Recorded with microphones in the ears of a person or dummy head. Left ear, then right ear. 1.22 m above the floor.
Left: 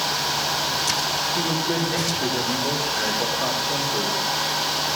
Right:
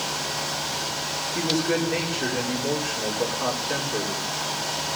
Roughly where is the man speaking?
Right.